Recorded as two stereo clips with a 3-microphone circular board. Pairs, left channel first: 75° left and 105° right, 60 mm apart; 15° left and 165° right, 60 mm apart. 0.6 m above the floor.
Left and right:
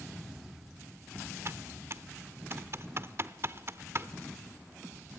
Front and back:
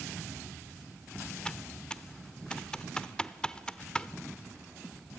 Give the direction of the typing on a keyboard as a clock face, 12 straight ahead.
2 o'clock.